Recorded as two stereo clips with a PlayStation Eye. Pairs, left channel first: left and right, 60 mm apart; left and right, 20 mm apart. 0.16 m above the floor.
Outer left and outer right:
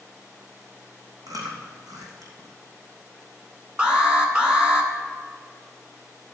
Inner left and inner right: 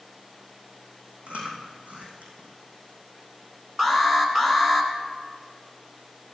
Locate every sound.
1.3 s chewing: 80° right, 3 m
3.8 s an alarm: 15° right (ahead or behind), 1.9 m